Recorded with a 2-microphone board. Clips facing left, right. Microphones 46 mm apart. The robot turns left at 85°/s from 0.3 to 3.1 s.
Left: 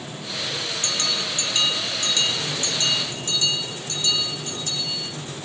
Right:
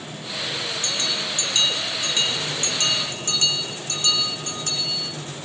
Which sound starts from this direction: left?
A bell, at 0.8 s.